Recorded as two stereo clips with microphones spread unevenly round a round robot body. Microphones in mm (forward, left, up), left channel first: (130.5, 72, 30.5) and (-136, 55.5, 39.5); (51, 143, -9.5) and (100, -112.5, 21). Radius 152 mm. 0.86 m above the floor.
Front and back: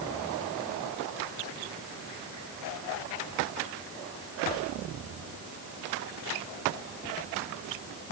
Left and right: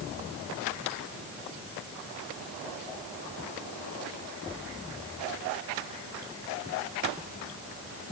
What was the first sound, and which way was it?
Only background noise.